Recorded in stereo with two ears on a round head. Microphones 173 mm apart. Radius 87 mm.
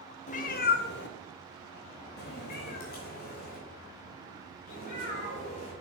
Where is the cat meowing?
35° left (ahead or behind), 0.6 m; by 5.7 s 40° left (ahead or behind), 3 m.